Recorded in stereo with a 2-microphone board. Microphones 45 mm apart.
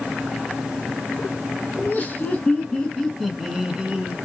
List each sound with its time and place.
1.8 s laughter: 35° left (ahead or behind), 1.7 m; by 4.1 s 30° right (ahead or behind), 1.1 m